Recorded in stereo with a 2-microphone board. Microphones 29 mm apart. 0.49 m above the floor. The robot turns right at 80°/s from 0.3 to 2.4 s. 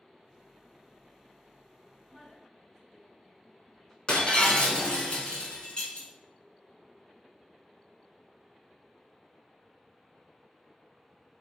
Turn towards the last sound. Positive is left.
turn(degrees=35)  # may be behind; listen again after turning